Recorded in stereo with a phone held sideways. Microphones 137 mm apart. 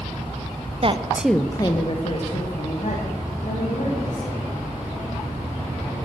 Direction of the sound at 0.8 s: 45° right (ahead or behind).